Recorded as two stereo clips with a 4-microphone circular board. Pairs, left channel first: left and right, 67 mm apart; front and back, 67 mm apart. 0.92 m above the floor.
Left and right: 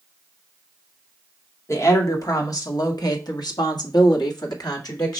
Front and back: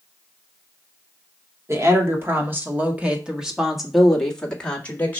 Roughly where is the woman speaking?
Behind left.